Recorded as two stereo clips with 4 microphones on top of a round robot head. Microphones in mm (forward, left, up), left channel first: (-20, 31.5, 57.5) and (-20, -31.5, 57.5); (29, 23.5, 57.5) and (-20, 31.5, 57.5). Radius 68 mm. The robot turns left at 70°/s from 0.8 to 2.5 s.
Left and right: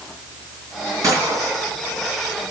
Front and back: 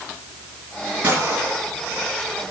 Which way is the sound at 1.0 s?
120° right.